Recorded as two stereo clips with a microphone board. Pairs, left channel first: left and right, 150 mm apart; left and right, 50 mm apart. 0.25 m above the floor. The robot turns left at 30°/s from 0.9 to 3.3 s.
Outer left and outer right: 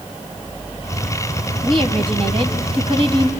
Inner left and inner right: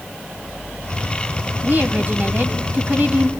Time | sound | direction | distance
1.6 | a woman speaking | 65° right | 1.9 m